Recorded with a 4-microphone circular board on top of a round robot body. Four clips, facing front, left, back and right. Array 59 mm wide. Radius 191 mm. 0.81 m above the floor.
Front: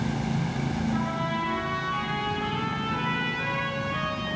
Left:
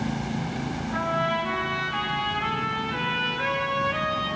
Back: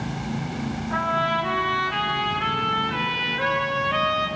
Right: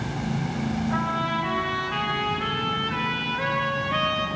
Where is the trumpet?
155° right, 6.5 m.